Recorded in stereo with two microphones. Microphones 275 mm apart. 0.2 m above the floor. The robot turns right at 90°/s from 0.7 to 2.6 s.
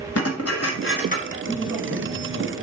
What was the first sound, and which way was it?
Dishes clattering, 110° left.